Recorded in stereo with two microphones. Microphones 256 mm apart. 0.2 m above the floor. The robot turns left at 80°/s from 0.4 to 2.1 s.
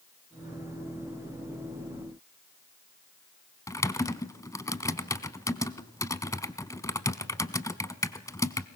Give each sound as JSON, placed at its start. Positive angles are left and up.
{"t": 3.7, "sound": "typing on a keyboard", "side_deg": 15, "distance_m": 0.7}